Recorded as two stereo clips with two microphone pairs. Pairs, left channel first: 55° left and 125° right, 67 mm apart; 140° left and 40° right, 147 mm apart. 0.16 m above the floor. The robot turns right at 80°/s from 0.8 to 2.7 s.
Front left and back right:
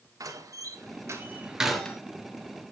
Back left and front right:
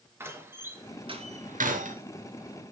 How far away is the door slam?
About 2.5 m.